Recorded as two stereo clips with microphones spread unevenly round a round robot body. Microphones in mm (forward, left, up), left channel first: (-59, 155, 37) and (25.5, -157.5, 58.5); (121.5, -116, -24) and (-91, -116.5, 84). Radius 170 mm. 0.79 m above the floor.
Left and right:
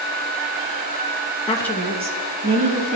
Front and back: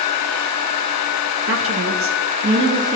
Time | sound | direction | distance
1.5 | a woman speaking | 150° left | 0.9 m